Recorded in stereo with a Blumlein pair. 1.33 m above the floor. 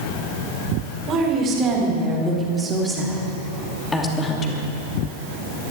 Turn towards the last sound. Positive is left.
turn(degrees=30)